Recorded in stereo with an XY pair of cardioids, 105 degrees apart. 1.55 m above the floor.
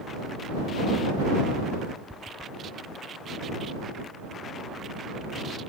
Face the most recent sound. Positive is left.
turn(degrees=-5)